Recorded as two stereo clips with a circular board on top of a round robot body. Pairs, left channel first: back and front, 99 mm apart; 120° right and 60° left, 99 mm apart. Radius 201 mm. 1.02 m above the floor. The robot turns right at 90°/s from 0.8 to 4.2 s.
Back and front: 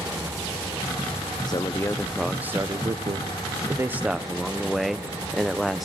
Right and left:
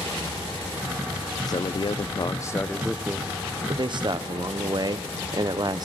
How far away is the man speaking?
About 0.8 m.